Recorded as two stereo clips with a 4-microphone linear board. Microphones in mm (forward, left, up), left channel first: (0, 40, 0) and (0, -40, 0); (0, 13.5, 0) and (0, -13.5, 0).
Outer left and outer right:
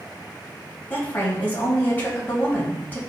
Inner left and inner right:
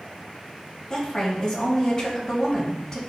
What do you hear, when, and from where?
0.9 s a woman speaking: 25° left (ahead or behind), 2.5 m